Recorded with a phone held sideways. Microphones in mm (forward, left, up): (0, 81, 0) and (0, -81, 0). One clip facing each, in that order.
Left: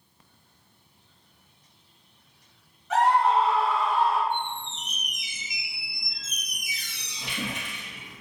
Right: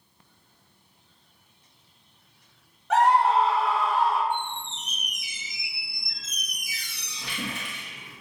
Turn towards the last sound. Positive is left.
turn(degrees=20)  # may be behind; listen again after turning